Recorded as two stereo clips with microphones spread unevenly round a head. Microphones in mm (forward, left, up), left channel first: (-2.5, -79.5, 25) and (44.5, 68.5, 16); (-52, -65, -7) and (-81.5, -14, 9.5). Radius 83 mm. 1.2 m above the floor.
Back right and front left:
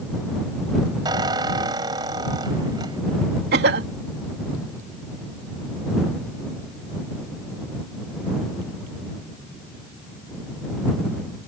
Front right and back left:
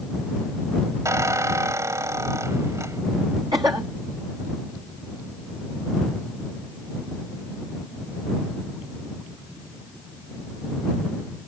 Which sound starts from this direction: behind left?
A squeak, at 1.1 s.